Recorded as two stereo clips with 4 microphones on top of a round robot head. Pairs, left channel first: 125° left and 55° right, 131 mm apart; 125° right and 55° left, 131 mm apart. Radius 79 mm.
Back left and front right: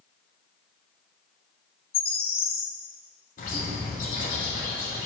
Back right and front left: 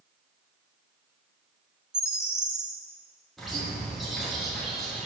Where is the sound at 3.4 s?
145° left, 3 m.